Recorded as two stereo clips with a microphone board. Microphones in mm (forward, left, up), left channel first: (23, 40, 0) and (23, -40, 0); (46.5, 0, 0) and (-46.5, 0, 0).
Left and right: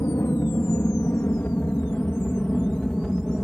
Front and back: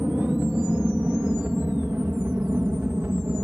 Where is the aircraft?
115° left; by 3.4 s 175° left.